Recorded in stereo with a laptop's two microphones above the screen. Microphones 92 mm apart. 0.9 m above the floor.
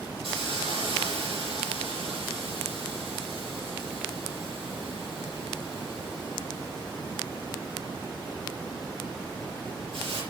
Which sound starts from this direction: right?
A hiss, at 0.2 s.